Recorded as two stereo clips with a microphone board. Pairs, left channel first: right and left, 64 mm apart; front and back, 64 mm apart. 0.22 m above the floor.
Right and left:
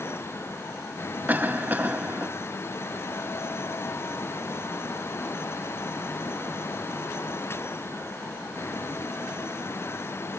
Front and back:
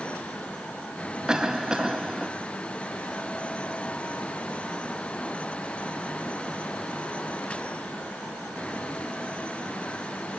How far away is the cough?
About 1.0 m.